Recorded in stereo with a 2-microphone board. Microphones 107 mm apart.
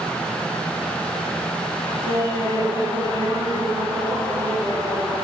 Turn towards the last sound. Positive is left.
turn(degrees=-35)  # may be behind; listen again after turning